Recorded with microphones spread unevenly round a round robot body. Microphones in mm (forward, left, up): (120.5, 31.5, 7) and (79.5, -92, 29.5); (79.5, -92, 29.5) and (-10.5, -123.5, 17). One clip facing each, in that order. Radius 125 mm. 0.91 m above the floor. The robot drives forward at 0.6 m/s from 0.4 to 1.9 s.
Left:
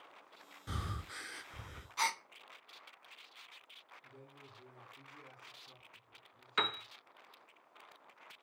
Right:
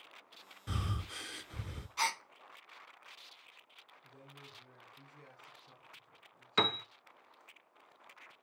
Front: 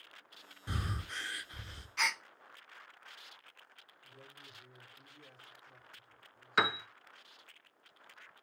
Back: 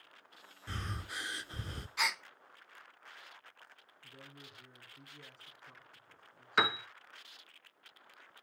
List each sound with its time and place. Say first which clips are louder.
0.7 s breathing: right 3 dB, front 2 dB; 35° right, 0.6 m; by 1.9 s 150° right, 0.7 m
2.0 s a gasp: even, even; 145° left, 0.6 m
4.0 s a man speaking: right 1 dB, back 2 dB; 140° left, 8.5 m
6.6 s a piano: right 5 dB, even; 65° right, 0.9 m